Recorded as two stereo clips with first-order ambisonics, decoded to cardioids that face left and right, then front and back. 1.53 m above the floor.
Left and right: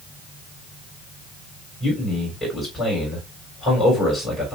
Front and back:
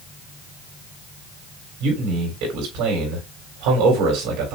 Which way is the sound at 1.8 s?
170° left.